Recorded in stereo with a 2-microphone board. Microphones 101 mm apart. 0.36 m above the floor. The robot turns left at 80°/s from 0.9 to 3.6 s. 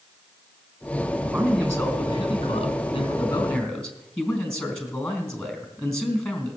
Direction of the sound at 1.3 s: 170° right.